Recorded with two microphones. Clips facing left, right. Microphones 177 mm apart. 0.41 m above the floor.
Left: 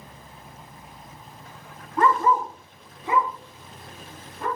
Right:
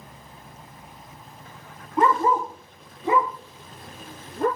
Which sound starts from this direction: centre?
A dog barking, at 2.0 s.